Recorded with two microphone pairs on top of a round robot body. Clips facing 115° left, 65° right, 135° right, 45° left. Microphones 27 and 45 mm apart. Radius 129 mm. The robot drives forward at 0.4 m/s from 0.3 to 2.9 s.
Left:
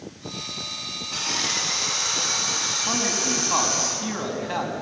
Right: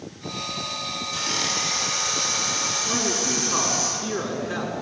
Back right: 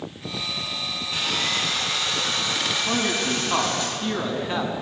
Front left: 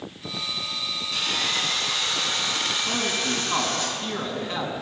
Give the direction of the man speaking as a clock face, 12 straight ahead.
7 o'clock.